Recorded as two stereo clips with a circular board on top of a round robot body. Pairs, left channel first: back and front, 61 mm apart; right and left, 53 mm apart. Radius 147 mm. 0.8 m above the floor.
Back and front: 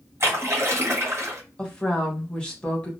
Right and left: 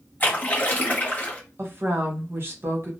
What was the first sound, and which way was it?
A splash, 35° right.